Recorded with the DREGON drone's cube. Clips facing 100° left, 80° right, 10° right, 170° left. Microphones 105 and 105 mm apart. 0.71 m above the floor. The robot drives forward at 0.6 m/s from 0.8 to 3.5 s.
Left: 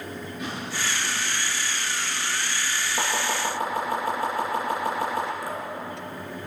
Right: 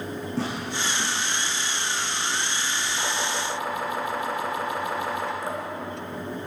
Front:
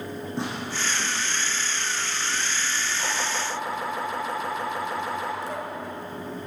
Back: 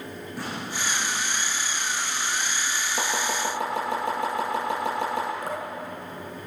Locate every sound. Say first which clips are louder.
0.4 s tearing paper: right 3 dB, front 1 dB; 75° right, 9.5 m
3.0 s chopping: left 3 dB, back 3 dB; 155° left, 9.5 m
5.4 s dripping: right 2 dB, even; 145° right, 3 m